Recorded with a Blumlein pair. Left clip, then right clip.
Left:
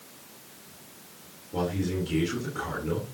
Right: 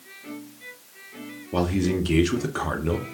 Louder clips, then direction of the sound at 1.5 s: Right 5 dB; 50° right.